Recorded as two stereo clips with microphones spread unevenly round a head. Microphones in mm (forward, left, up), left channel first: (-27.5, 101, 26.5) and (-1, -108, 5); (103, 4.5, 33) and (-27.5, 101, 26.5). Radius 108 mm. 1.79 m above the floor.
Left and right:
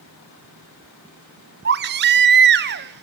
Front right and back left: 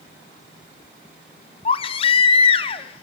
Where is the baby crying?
80° right, 0.7 m.